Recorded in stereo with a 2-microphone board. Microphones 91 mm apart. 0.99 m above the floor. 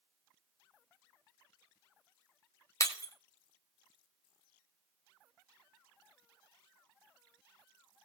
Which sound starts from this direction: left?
Breaking glass, at 2.8 s.